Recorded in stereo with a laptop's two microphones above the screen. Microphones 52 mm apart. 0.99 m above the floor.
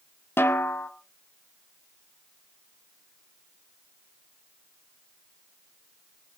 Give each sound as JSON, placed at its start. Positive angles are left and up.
{"t": 0.4, "sound": "a snare drum", "side_deg": 50, "distance_m": 0.9}